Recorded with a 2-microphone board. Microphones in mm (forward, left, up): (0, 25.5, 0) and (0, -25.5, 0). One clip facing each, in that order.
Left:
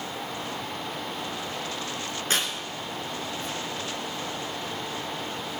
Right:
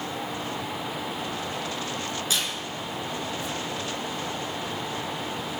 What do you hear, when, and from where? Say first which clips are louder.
2.3 s tearing paper: left 3 dB; 40° left (ahead or behind), 3 m